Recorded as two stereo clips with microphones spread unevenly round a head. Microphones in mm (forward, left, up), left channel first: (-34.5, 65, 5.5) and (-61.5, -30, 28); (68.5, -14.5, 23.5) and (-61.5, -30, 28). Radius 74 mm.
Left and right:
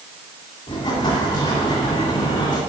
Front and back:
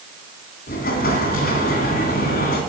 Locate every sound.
0.7 s an explosion: 20° left, 1.9 m